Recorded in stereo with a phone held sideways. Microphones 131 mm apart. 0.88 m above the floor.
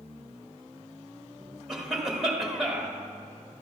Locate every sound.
1.7 s a cough: 5° right (ahead or behind), 1.8 m